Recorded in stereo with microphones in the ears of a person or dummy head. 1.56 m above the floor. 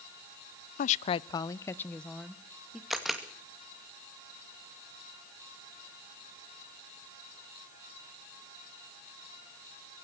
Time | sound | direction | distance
0.8 | a woman speaking | 50° left (ahead or behind) | 0.5 m
2.9 | a camera shutter | centre (ahead or behind) | 2 m